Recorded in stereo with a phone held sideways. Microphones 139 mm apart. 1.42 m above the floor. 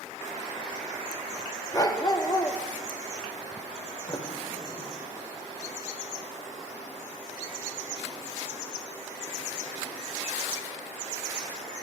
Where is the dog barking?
30° left (ahead or behind), 0.9 m.